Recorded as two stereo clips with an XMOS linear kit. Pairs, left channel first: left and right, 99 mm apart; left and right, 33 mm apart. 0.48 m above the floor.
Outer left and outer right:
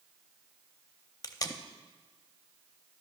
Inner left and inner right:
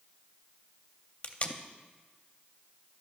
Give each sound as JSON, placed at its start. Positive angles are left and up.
{"t": 1.2, "sound": "tape being pulled", "side_deg": 40, "distance_m": 0.5}